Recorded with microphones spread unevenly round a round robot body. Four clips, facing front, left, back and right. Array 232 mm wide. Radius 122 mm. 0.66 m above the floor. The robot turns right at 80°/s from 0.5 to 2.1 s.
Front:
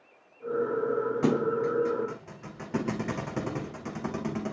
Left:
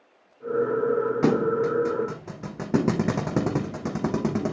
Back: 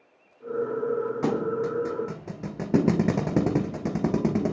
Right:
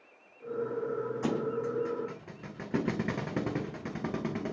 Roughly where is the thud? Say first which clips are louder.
Left 9 dB, front 2 dB; left.